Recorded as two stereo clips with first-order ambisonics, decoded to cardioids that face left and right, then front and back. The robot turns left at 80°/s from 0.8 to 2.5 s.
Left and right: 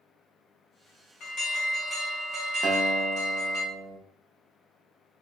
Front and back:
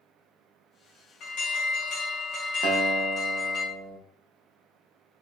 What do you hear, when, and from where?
1.2 s an alarm: 45° left, 1.6 m; by 3.6 s 60° right, 1.6 m
2.6 s a guitar: 145° right, 0.8 m